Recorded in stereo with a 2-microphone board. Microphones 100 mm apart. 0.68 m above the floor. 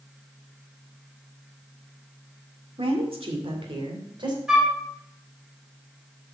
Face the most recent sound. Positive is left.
turn(degrees=-10)  # may be behind; listen again after turning